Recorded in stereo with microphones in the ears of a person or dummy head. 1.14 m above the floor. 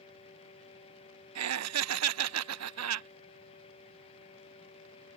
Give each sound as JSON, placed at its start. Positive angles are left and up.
{"t": 1.4, "sound": "laughter", "side_deg": -80}